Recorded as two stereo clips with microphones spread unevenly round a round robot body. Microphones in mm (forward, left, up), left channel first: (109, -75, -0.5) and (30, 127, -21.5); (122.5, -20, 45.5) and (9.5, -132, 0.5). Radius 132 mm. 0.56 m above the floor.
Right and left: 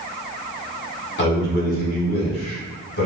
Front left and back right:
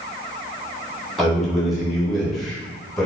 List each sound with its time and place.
1.2 s a man speaking: 65° right, 1.5 m